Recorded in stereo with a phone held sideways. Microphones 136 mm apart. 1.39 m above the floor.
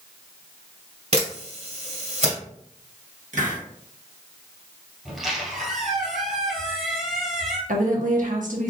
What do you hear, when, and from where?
1.1 s a camera shutter: 55° right (ahead or behind), 1.9 m
3.3 s a hiss: 65° right (ahead or behind), 1.6 m
5.0 s a squeak: centre (ahead or behind), 2.5 m
7.7 s a woman speaking: 75° right (ahead or behind), 1.3 m